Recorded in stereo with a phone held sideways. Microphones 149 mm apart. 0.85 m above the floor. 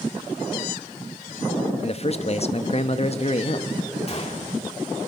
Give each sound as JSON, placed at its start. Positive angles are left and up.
{"t": 1.8, "sound": "a man speaking", "side_deg": 45, "distance_m": 1.2}
{"t": 4.1, "sound": "a gunshot", "side_deg": 45, "distance_m": 2.0}